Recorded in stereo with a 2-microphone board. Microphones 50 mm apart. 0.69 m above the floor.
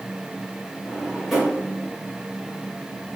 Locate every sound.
0.9 s a drawer: centre (ahead or behind), 1.5 m